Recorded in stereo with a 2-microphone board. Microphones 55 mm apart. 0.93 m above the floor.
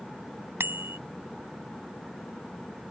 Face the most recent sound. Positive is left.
turn(degrees=-45)  # may be behind; listen again after turning